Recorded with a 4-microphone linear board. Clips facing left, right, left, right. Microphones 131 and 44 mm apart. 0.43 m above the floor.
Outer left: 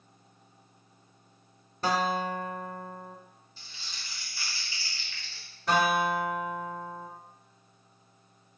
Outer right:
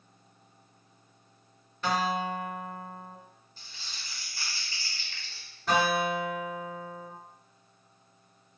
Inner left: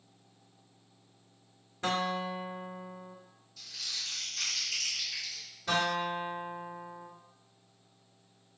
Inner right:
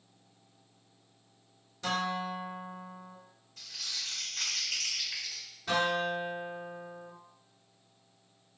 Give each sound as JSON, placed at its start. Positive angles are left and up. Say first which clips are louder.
{"t": 1.8, "sound": "a guitar", "louder": "outer left 1 dB, inner left 1 dB", "side_deg": 35, "distance_m": 0.5}
{"t": 3.6, "sound": "crumpling", "louder": "even, even", "side_deg": -45, "distance_m": 1.3}
{"t": 5.7, "sound": "a guitar", "louder": "outer left 1 dB, inner right 1 dB", "side_deg": 0, "distance_m": 1.7}